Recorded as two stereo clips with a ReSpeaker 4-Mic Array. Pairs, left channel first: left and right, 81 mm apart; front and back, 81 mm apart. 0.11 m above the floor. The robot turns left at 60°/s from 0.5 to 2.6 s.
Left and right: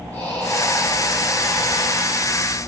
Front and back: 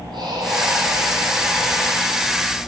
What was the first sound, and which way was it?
Breathing, 160° left.